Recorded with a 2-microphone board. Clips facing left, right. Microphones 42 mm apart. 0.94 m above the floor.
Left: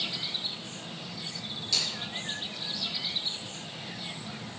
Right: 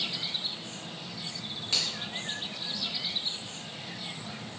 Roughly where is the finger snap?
Right.